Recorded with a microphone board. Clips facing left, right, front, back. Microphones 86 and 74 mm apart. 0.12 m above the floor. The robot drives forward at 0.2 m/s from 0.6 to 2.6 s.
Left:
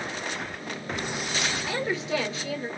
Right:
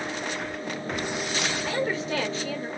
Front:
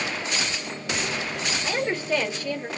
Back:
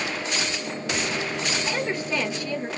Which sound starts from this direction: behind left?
A woman speaking, at 1.6 s.